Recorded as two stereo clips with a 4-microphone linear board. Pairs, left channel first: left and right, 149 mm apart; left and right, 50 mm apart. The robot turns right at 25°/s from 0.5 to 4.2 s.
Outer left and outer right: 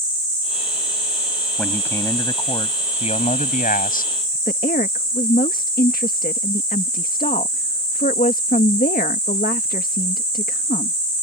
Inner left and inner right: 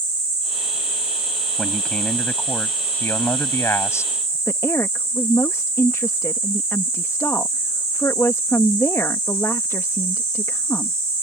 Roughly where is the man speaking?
Ahead.